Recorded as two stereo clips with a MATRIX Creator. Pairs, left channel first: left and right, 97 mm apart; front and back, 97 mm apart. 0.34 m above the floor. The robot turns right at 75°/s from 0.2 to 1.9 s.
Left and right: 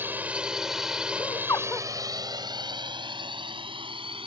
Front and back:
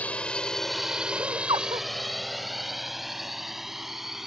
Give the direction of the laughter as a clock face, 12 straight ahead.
8 o'clock.